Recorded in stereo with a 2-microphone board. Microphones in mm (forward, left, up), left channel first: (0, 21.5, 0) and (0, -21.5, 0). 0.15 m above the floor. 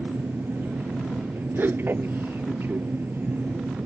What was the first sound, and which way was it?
An aircraft, 55° right (ahead or behind).